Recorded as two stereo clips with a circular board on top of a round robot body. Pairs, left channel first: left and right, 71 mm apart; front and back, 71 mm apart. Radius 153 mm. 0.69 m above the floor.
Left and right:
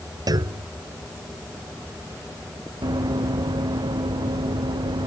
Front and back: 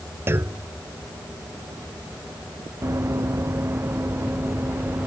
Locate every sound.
0.3 s a clunk: 120° right
2.8 s running footsteps: 125° right; by 5.1 s 110° right